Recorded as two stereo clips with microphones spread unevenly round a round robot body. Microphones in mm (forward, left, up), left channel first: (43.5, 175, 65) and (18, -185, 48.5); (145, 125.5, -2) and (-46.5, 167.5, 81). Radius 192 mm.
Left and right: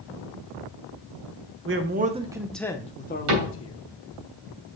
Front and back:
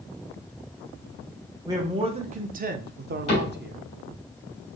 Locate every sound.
1.6 s a man speaking: 95° right, 0.9 m; by 3.8 s 120° left, 1.1 m
3.3 s a cupboard door: 60° right, 3 m